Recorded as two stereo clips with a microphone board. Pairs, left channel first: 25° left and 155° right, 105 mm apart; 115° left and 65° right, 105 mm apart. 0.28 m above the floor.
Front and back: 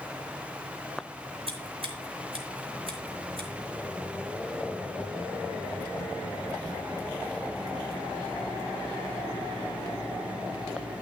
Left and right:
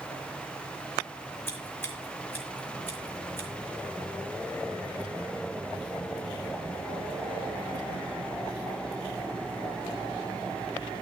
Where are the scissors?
Straight behind, 3.5 m.